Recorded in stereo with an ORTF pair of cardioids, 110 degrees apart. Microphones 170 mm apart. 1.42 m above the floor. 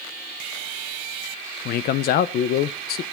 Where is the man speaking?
70° left, 0.8 m.